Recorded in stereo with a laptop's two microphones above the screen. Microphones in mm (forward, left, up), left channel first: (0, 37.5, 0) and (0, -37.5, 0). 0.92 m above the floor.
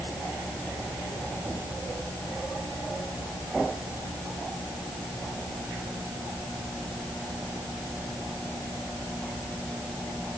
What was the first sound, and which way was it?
Only background noise.